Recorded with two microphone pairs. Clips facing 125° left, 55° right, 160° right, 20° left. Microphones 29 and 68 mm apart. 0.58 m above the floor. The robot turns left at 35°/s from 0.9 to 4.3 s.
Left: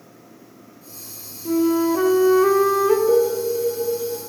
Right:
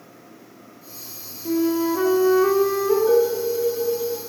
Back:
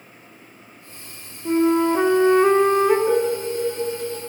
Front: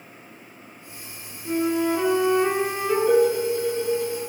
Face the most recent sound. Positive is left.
turn(degrees=-140)